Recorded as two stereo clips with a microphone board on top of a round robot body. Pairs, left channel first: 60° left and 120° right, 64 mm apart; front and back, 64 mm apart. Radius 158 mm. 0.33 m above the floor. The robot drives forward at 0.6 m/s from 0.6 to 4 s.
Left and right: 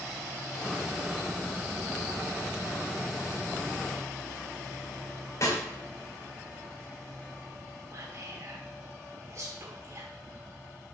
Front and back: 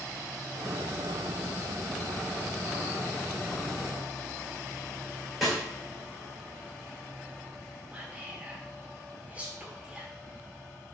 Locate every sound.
5.4 s a snare drum: 95° left, 3 m
7.9 s whispering: 115° right, 1.4 m